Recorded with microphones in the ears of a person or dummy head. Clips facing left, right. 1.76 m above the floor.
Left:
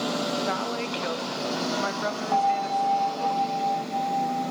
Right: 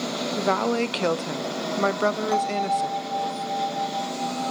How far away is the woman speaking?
About 0.8 m.